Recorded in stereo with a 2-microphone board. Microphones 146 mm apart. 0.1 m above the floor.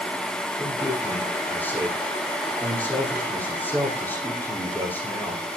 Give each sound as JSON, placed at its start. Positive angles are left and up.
{"t": 0.6, "sound": "a man speaking", "side_deg": 10, "distance_m": 5.5}